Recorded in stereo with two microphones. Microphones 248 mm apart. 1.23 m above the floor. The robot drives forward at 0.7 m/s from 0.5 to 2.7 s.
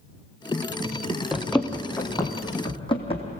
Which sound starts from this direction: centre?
Running footsteps, at 1.3 s.